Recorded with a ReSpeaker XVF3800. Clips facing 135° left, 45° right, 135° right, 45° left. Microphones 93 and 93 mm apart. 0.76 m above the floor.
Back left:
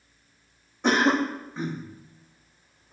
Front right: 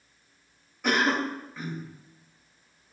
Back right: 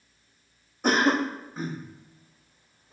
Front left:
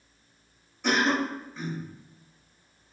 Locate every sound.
0.8 s a cough: 170° right, 0.7 m